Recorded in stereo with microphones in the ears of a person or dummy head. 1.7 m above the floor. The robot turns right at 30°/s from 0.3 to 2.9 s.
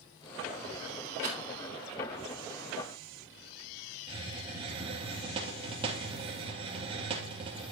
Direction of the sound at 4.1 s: 30° right (ahead or behind).